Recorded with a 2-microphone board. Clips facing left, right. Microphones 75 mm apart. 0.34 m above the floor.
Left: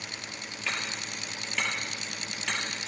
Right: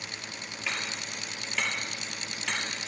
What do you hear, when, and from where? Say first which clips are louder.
0.7 s hammering: left 1 dB; 5° right (ahead or behind), 6 m